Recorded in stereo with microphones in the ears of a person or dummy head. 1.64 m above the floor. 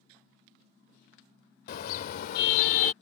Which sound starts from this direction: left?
A car horn, at 1.7 s.